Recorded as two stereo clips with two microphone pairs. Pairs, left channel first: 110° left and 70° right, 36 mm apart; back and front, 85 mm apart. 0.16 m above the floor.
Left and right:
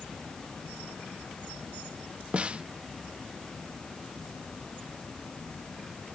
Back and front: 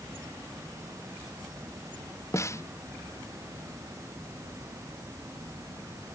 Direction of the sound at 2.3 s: 125° right.